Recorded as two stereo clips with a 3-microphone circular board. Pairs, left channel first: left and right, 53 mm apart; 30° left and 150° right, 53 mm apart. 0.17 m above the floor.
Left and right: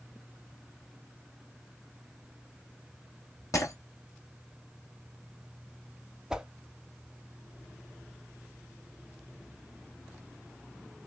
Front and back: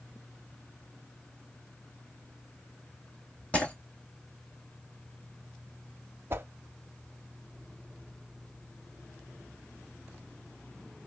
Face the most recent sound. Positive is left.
turn(degrees=-160)